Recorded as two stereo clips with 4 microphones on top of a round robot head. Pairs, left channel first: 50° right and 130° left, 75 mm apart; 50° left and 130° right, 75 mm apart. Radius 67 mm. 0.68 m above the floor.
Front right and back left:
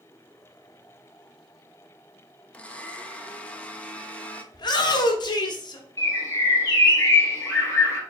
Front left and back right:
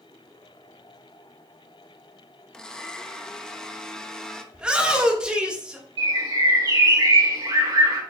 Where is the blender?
15° right, 0.8 m.